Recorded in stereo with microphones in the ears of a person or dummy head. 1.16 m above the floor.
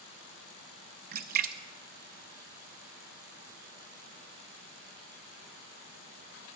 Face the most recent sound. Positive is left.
turn(degrees=-45)  # may be behind; listen again after turning